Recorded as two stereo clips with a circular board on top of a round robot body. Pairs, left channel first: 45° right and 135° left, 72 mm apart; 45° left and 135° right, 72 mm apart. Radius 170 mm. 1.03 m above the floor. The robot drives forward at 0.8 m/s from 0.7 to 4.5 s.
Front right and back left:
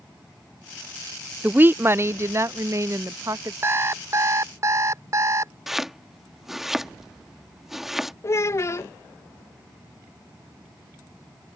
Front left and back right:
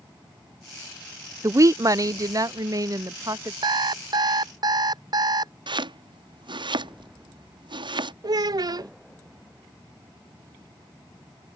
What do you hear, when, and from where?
1.4 s a woman speaking: 160° right; by 3.5 s 175° right
3.6 s an alarm clock: 165° right; by 5.5 s 170° right
5.7 s chopping: 140° right
8.2 s a child speaking: 100° right